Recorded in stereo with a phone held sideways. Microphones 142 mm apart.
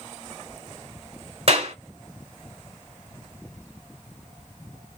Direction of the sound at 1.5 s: 50° right (ahead or behind).